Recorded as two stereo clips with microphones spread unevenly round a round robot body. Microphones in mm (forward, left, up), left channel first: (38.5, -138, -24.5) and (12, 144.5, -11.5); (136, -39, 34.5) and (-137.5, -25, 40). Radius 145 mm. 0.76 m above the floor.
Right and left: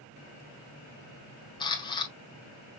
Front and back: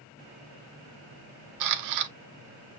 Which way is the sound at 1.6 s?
160° right.